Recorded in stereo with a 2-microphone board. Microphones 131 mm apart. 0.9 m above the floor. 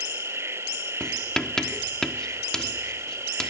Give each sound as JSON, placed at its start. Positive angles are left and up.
{"t": 0.0, "sound": "an insect", "side_deg": -20}
{"t": 1.0, "sound": "writing", "side_deg": 5}